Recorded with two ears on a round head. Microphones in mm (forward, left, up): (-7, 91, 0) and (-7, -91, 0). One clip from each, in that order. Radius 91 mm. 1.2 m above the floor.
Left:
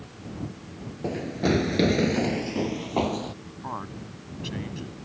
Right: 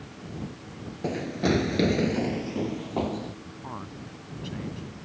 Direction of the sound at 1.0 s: 20° right (ahead or behind).